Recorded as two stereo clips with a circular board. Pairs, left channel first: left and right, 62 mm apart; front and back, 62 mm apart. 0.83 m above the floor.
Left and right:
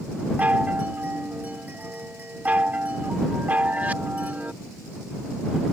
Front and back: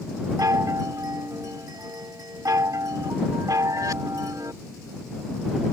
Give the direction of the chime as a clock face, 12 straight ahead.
5 o'clock.